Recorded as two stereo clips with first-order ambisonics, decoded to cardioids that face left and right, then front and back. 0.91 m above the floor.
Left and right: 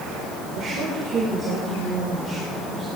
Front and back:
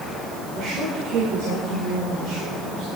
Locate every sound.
0.5 s a woman speaking: 140° right, 3.5 m; by 2.9 s 165° left, 4.5 m